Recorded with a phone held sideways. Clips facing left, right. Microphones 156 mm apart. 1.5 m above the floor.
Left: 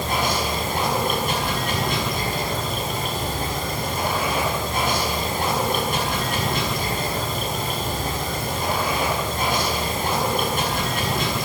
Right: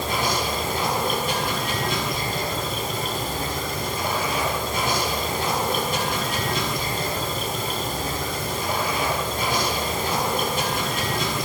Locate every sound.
0.0 s running water: 55° left (ahead or behind), 7 m